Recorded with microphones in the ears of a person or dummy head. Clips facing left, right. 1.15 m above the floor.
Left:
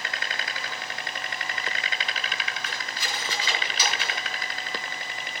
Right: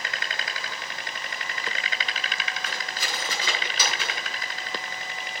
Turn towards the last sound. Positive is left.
turn(degrees=-45)  # may be behind; listen again after turning